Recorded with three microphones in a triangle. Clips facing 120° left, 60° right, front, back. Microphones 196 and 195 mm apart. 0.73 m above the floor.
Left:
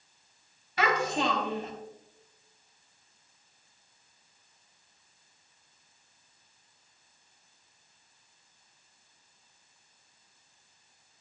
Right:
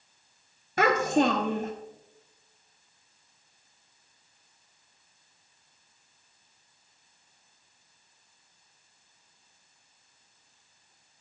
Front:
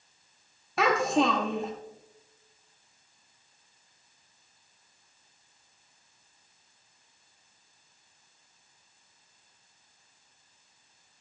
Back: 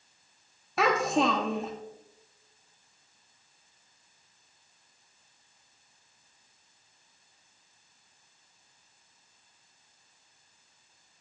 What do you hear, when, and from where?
0.8 s a child speaking: 90° right, 0.9 m